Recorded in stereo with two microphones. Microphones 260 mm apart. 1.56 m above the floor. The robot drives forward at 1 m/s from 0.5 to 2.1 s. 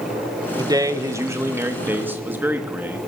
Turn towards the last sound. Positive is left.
turn(degrees=-5)  # may be behind; listen again after turning